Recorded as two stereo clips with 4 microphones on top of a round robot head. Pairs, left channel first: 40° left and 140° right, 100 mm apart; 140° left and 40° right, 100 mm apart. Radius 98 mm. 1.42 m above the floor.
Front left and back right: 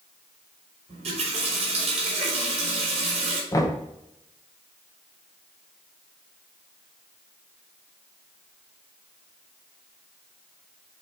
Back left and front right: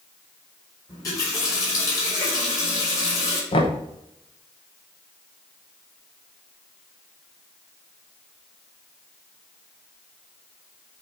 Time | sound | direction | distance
0.9 | a running tap | 160° right | 3 m
3.5 | knocking | 100° left | 1.0 m